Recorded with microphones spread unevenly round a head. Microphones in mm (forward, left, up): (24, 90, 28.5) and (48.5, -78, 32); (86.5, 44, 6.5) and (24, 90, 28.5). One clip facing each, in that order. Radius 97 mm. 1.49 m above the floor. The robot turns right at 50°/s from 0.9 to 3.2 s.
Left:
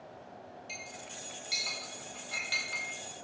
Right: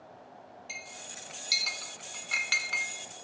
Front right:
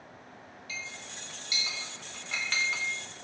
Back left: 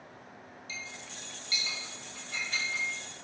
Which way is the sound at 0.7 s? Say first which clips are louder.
Left 2 dB, front right 2 dB; 160° right.